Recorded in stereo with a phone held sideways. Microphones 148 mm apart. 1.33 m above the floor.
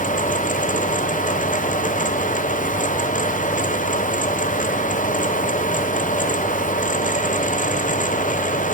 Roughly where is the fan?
Left.